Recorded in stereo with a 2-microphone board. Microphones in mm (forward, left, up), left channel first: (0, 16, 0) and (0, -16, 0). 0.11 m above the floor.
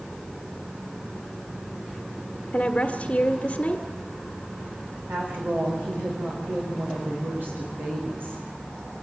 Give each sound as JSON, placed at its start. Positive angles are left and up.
{"t": 2.5, "sound": "a woman speaking", "side_deg": 30, "distance_m": 1.5}
{"t": 5.1, "sound": "a woman speaking", "side_deg": -80, "distance_m": 7.5}